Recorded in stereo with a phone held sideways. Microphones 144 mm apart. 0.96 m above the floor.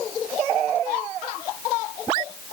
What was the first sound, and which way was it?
Only background noise.